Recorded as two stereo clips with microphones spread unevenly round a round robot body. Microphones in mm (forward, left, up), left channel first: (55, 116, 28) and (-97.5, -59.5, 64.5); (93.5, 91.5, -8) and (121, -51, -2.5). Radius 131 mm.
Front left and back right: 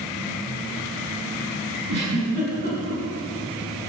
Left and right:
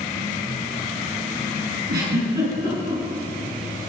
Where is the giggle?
85° right, 7.5 m.